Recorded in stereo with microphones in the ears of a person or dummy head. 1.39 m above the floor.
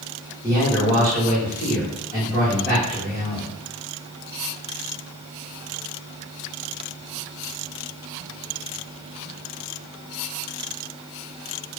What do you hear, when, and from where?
0.4 s a man speaking: 15° left (ahead or behind), 1.0 m